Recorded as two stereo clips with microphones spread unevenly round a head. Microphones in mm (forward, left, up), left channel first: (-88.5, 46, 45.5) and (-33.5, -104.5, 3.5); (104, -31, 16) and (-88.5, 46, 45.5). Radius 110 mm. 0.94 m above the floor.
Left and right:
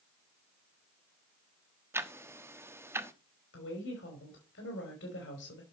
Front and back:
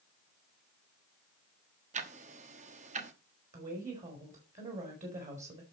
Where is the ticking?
145° right, 1.2 m.